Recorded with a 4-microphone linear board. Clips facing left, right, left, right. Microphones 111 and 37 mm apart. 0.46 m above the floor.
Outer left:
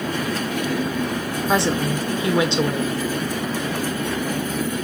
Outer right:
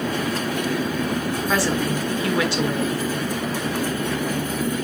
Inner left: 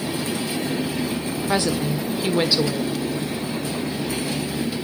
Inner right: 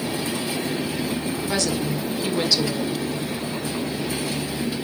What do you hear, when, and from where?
1.5 s a woman speaking: 25° left (ahead or behind), 1.4 m